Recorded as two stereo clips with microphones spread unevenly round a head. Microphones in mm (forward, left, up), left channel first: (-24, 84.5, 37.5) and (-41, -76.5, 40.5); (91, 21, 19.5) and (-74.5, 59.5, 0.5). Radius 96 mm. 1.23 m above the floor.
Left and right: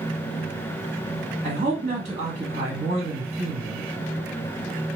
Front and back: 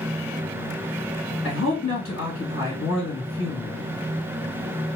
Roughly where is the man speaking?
Ahead right.